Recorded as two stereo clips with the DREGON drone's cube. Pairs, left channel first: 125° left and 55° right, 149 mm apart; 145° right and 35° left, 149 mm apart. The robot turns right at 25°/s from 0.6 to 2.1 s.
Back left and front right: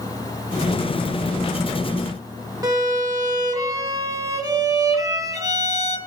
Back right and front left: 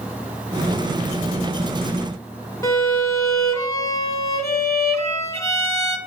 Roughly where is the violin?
Right.